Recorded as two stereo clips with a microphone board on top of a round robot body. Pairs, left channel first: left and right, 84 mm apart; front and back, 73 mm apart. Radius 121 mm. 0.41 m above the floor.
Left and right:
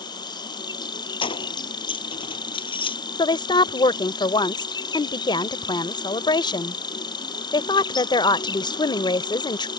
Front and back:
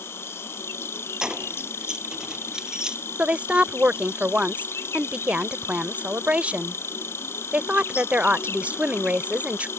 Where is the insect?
55° left.